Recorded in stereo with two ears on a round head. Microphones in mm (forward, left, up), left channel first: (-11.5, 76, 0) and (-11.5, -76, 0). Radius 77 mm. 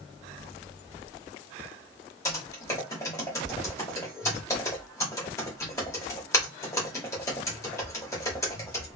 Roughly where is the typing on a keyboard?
Centre.